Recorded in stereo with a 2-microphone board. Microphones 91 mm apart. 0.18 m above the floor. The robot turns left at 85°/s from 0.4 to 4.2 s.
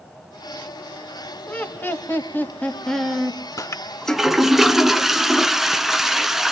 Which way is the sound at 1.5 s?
15° left (ahead or behind).